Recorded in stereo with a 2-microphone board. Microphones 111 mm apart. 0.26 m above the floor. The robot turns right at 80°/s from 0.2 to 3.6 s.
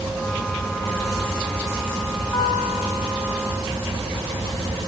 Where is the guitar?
30° left, 10 m; by 3.2 s 100° left, 10 m.